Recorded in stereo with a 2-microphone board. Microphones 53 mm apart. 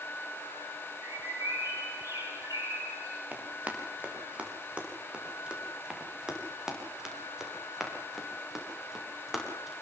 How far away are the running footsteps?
About 8 m.